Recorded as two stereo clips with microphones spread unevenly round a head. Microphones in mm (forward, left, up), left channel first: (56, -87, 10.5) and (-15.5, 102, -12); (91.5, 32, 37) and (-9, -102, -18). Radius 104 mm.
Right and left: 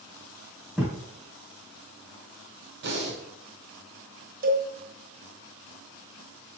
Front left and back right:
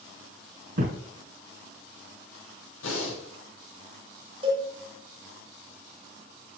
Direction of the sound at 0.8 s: 160° right.